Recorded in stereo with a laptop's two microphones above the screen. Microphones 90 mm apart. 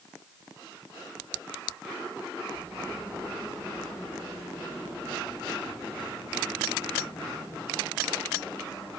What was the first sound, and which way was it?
Only background noise.